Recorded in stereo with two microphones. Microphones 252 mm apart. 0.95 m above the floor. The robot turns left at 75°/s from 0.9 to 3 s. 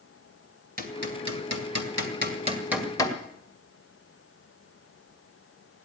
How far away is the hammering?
About 2 m.